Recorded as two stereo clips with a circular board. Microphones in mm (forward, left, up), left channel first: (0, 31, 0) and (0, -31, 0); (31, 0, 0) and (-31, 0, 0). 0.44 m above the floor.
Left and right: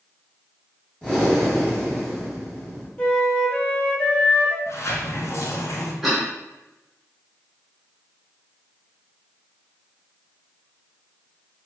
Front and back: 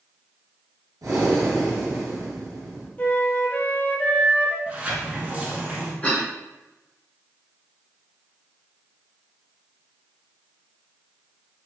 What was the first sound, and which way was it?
Breathing, 165° left.